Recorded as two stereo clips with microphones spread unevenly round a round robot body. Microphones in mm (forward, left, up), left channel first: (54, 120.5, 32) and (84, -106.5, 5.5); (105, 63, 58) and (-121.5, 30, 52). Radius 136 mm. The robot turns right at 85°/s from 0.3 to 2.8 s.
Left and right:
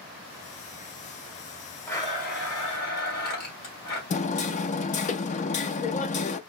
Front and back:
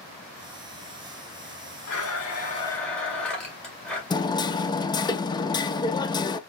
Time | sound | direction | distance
1.9 | a blender | 15° left | 2 m
4.1 | hammering | 65° left | 0.5 m